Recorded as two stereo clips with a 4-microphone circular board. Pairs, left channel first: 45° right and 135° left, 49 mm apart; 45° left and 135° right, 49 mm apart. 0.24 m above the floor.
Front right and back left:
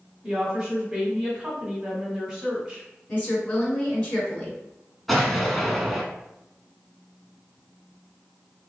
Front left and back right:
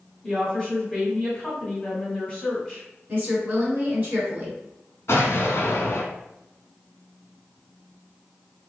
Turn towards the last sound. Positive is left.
turn(degrees=45)